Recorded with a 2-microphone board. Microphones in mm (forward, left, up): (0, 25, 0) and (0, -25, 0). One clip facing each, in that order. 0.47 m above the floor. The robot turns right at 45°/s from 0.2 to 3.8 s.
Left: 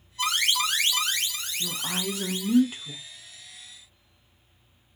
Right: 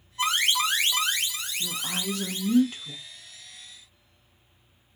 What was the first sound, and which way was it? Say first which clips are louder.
An alarm: right 1 dB; 30° right (ahead or behind).